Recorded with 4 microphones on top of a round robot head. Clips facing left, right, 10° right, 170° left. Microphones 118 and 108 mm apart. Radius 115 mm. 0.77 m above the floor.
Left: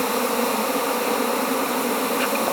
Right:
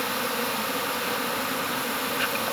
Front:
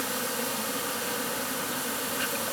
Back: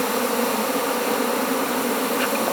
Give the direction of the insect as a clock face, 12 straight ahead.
7 o'clock.